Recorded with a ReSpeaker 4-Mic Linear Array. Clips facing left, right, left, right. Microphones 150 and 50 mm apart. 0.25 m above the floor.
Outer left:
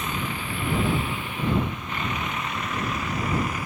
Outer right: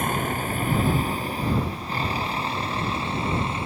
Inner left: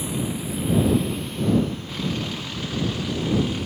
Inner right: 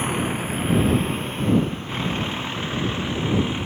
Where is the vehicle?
50° right (ahead or behind); by 3.7 s 25° right (ahead or behind).